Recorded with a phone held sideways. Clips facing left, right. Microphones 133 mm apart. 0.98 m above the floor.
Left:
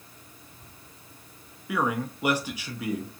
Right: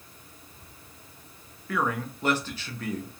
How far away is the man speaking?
About 0.6 m.